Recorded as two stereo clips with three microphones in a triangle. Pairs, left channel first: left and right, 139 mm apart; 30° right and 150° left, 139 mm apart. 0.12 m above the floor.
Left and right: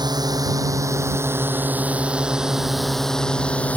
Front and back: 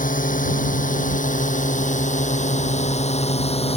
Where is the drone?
30° right; by 3.8 s 10° left.